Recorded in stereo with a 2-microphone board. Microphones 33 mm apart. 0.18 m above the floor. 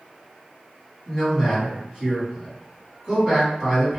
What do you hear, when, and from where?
1.1 s a man speaking: 20° right (ahead or behind), 1.6 m